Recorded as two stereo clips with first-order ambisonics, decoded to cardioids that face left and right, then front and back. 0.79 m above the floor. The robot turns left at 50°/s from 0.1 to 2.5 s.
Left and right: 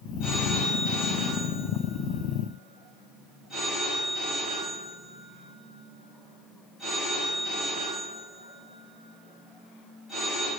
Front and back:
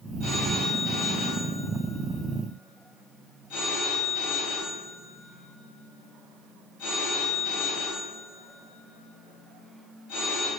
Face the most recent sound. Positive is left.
turn(degrees=15)